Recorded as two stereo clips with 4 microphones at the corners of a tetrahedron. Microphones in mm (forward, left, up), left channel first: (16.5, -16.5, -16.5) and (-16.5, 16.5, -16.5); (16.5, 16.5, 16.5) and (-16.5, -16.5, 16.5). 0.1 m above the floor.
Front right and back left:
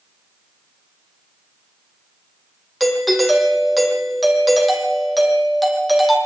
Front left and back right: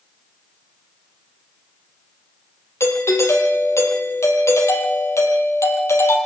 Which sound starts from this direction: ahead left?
A doorbell, at 2.8 s.